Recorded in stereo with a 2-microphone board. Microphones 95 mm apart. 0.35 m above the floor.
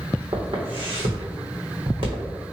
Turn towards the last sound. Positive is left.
turn(degrees=-65)  # may be behind; listen again after turning